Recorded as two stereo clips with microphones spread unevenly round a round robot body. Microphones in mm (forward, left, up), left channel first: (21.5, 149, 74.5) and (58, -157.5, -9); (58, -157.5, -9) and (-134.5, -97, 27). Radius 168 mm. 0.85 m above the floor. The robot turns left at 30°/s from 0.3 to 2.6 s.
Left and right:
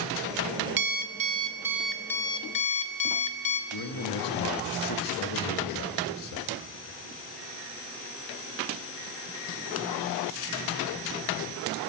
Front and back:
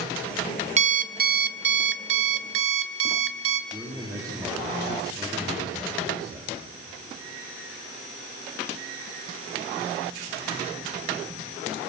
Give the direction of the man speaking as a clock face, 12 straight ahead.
9 o'clock.